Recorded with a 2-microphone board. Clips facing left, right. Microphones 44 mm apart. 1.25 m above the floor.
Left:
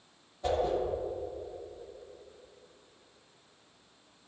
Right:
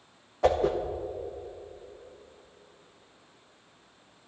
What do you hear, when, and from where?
0.4 s a whoosh: 75° right (ahead or behind), 1.2 m